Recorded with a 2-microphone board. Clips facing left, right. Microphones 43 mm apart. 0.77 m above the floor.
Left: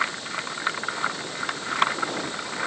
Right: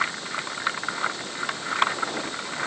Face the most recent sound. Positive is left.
No sound to turn to.